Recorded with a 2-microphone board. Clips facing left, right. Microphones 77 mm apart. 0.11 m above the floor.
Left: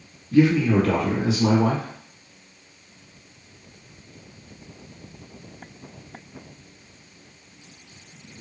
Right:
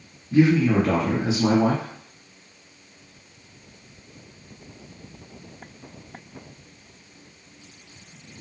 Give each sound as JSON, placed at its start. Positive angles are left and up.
{"t": 0.3, "sound": "a man speaking", "side_deg": -25, "distance_m": 1.2}